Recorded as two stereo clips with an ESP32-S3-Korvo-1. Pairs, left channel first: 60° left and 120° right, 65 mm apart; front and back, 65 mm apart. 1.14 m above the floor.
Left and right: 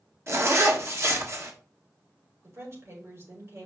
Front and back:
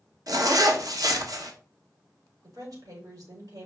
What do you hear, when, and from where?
0.3 s a zipper: 165° right, 1.4 m
2.4 s a woman speaking: 165° right, 5 m